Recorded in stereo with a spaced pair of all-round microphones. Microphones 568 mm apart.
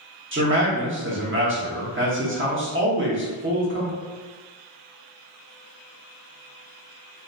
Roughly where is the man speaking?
Right.